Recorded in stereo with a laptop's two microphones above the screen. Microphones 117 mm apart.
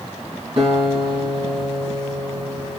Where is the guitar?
50° right (ahead or behind), 3.5 m.